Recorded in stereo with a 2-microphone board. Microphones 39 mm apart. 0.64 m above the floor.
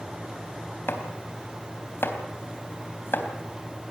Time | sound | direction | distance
0.9 | chopping | 70° left (ahead or behind) | 3.5 m